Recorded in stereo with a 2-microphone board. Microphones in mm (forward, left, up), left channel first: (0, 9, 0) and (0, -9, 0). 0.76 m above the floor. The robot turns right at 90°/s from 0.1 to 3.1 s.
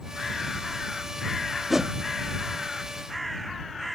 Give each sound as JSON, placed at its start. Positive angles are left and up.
{"t": 1.7, "sound": "a whoosh", "side_deg": -15}